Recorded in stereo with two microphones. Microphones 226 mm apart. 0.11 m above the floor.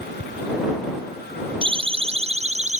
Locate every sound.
1.6 s a siren: 20° right (ahead or behind); by 2.8 s 30° right (ahead or behind)